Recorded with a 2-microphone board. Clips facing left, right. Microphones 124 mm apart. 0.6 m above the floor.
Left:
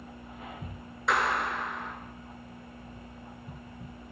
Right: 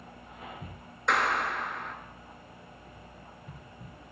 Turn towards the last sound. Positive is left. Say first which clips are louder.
# even
turn(degrees=0)  # may be behind; listen again after turning